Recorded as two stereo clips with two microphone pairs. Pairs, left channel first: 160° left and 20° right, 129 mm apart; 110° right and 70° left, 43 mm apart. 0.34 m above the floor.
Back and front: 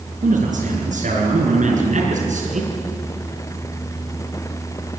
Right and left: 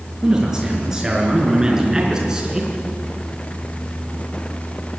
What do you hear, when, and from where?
0.2 s a man speaking: 10° right, 5 m